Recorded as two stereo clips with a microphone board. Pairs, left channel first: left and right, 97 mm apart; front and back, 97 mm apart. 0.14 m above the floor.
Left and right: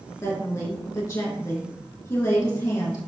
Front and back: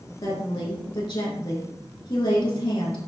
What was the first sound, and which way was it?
A woman speaking, 25° left.